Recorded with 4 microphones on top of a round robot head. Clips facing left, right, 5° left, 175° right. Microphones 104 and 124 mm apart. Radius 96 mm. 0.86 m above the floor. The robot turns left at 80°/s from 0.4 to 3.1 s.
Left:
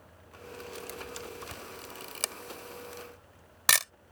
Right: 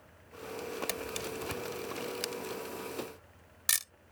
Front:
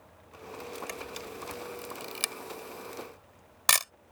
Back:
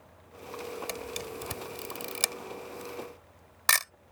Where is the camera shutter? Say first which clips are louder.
Right 4 dB, back 3 dB; 110° right; by 3.9 s 75° left.